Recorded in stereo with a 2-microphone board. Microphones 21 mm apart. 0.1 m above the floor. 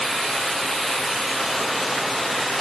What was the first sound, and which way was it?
Only background noise.